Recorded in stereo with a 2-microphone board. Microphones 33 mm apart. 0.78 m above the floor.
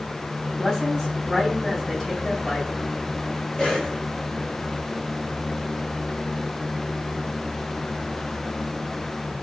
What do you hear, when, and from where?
0.6 s a woman speaking: 5° left (ahead or behind), 5.5 m
3.6 s a cough: 25° left (ahead or behind), 7 m